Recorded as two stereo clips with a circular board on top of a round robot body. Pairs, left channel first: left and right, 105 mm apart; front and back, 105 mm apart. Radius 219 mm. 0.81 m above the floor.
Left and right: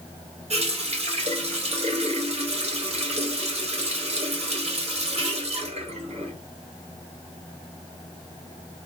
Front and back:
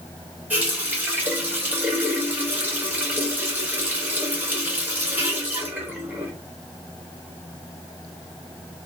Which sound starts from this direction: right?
A running tap, at 0.5 s.